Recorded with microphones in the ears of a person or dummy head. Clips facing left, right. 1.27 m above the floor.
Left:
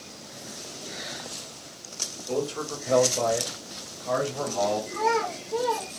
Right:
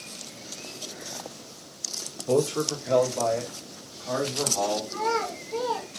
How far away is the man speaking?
About 0.6 m.